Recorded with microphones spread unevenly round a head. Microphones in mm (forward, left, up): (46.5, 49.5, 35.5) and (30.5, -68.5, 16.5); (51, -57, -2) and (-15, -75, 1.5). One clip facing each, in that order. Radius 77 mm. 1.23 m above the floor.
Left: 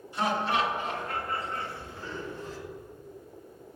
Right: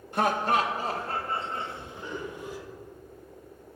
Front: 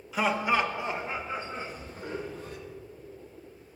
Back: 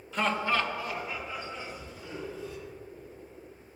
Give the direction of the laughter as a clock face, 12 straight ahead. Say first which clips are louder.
Right 3 dB, front 2 dB; 2 o'clock.